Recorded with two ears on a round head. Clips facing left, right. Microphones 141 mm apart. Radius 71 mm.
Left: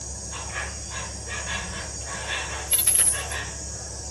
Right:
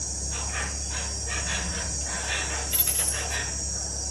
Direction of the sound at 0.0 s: 45° right (ahead or behind).